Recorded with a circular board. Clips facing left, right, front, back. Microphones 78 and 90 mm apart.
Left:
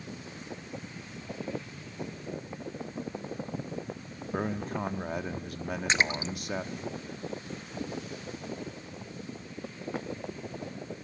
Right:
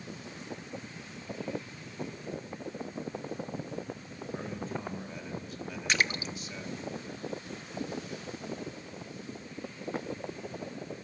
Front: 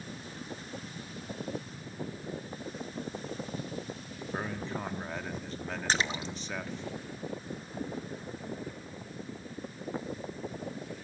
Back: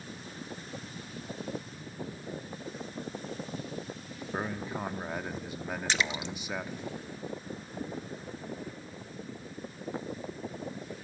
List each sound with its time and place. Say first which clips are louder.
4.3 s a man speaking: left 6 dB, back 1 dB; 105° left, 1.3 m
5.9 s a splash: left 1 dB, front 2 dB; 35° left, 0.8 m